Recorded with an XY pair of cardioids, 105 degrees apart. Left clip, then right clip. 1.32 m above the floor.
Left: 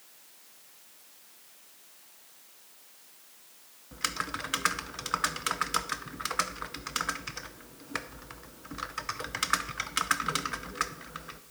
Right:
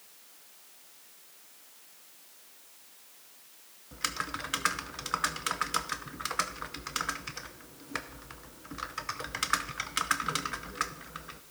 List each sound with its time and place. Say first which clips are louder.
3.9 s typing on a keyboard: left 1 dB; 10° left, 0.6 m